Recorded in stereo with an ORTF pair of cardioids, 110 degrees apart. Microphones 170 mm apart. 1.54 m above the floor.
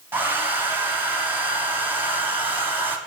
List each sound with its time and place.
0.1 s a hair dryer: 10° right, 0.9 m